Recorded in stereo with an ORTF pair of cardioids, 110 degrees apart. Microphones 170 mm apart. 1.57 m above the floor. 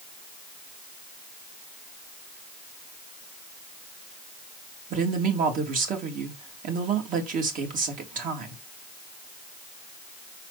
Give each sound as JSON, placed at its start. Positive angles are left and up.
{"t": 4.9, "sound": "a woman speaking", "azimuth_deg": -55, "distance_m": 3.0}